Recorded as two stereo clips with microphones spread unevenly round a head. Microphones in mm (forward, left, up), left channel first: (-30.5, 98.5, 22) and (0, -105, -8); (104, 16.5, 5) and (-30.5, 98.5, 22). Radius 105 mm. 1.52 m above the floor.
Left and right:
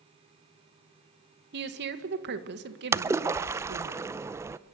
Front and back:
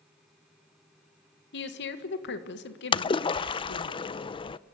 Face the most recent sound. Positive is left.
turn(degrees=0)